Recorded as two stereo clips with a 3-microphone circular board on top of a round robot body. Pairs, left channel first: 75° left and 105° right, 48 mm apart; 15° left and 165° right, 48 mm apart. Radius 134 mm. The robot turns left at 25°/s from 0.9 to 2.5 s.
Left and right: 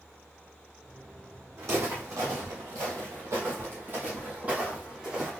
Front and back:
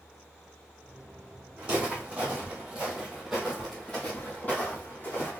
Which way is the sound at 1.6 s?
95° right.